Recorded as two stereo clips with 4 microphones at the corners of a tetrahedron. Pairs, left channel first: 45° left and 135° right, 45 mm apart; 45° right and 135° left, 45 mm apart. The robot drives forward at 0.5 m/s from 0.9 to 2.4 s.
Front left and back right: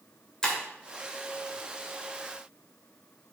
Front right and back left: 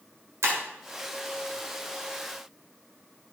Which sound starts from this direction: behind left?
Breaking glass, at 0.4 s.